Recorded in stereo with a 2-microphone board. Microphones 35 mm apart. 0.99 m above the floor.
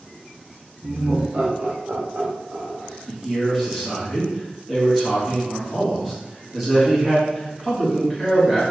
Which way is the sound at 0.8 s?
50° right (ahead or behind).